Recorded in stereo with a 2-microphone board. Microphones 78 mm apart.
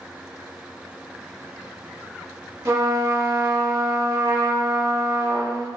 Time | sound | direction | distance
2.6 | a trumpet | 40° right (ahead or behind) | 0.6 m